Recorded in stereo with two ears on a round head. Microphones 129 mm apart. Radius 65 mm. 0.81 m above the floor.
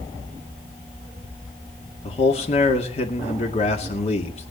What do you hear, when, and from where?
2.0 s a man speaking: 45° left (ahead or behind), 2 m